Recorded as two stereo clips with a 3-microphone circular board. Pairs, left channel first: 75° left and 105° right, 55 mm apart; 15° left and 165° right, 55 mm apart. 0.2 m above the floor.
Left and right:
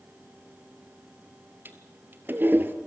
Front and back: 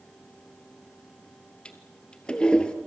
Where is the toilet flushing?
55° right, 1.7 m.